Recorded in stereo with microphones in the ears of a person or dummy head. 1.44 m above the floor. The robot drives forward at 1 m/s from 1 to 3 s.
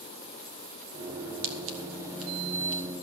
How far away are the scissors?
About 1.3 m.